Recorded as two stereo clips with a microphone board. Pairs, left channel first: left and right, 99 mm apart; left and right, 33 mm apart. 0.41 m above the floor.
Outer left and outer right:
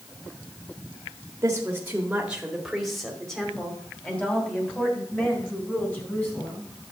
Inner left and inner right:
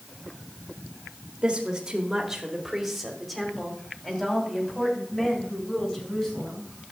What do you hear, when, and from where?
1.4 s a woman speaking: 30° right (ahead or behind), 1.4 m; by 6.6 s 20° left (ahead or behind), 4.5 m